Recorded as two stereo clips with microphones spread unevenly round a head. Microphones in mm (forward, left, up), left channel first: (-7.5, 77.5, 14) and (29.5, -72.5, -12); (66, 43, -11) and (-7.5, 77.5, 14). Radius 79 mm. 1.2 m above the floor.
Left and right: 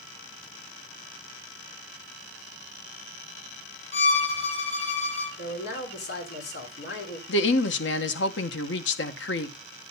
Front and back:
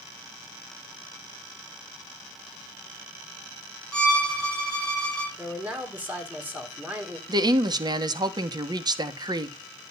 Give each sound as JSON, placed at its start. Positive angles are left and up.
{"t": 3.9, "sound": "a violin", "azimuth_deg": 55, "distance_m": 6.5}
{"t": 5.4, "sound": "a man speaking", "azimuth_deg": 85, "distance_m": 3.5}
{"t": 7.3, "sound": "a woman speaking", "azimuth_deg": 110, "distance_m": 1.2}